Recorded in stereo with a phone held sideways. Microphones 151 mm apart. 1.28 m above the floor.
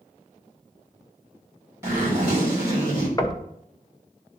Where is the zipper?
20° right (ahead or behind), 2.5 m.